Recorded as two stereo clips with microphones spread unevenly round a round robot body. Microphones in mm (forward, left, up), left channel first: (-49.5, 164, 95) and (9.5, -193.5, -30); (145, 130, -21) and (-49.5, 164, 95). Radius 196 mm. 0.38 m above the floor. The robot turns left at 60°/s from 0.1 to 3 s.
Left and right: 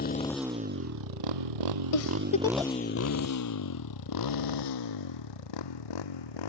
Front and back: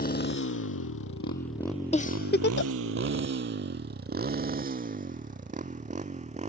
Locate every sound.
0.0 s a motorcycle: 35° left; by 6.5 s 115° left
1.9 s a giggle: 45° left; by 2.7 s straight ahead